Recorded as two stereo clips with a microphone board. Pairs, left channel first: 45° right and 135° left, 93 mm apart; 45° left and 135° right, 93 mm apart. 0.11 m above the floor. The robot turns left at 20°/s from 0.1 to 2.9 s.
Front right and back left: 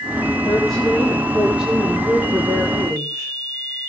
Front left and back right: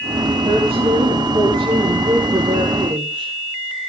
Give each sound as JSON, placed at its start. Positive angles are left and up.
{"t": 0.4, "sound": "a woman speaking", "azimuth_deg": -130, "distance_m": 8.5}